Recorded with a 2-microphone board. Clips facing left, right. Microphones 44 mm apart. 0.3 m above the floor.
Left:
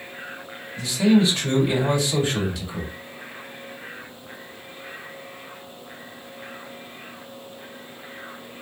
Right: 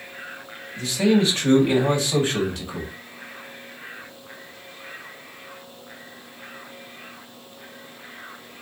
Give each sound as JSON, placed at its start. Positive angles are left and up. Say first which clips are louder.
{"t": 0.8, "sound": "a man speaking", "louder": "left 1 dB", "side_deg": -40, "distance_m": 2.0}